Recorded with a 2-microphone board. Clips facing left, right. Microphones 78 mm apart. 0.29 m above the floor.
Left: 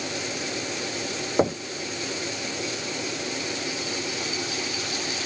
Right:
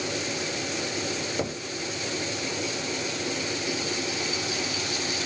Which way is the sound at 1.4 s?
40° left (ahead or behind).